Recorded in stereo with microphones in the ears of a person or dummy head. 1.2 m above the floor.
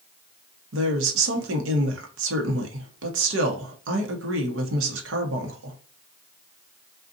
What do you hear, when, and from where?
0.7 s a woman speaking: 75° right (ahead or behind), 1.0 m